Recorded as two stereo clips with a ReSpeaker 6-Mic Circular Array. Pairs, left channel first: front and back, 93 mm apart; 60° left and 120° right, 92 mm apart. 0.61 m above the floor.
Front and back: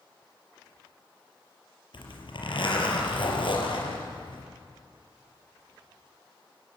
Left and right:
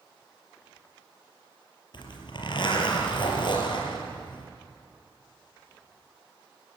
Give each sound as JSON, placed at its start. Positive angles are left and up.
{"t": 1.9, "sound": "a zipper", "azimuth_deg": 25, "distance_m": 4.5}